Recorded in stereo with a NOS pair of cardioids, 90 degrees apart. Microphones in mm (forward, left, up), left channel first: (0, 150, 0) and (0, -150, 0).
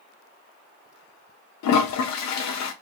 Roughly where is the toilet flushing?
Ahead left.